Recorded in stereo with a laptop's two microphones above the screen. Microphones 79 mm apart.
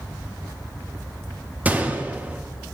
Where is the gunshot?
20° right (ahead or behind), 0.5 m.